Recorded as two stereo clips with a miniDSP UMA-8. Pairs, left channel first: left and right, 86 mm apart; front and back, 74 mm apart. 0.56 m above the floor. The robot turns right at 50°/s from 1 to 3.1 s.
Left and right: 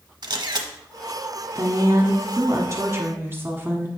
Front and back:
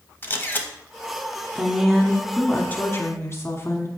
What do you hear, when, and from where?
0.2 s a camera shutter: 60° right, 0.8 m
1.6 s a woman speaking: 115° right, 1.2 m; by 3.9 s 35° right, 1.2 m